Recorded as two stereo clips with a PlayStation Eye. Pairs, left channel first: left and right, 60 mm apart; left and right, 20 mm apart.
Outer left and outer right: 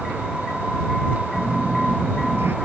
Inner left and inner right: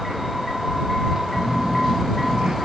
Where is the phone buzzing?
40° right (ahead or behind).